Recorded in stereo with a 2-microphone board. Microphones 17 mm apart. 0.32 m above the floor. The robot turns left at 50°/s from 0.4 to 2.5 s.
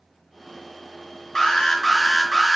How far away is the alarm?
About 2.0 m.